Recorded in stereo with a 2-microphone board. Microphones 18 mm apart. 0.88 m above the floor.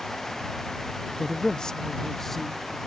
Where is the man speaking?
55° left (ahead or behind); by 2.8 s 10° left (ahead or behind).